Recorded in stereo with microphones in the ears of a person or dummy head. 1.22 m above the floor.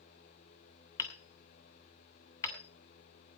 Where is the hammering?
15° left (ahead or behind), 2.5 m.